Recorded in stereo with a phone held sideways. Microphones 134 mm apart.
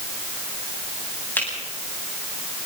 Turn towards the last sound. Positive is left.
turn(degrees=15)  # may be behind; listen again after turning